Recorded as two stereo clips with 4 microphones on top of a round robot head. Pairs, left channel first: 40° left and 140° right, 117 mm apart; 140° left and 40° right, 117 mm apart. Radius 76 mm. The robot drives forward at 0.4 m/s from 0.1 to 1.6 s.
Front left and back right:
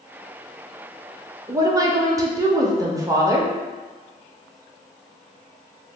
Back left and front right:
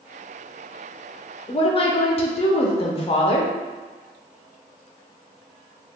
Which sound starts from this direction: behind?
A woman speaking, at 1.5 s.